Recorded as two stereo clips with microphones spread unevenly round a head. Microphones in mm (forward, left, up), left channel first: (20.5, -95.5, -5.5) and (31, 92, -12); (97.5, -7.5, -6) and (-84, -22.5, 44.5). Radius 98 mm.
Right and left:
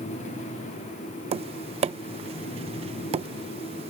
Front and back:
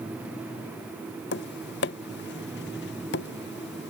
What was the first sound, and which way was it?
Tapping, 40° left.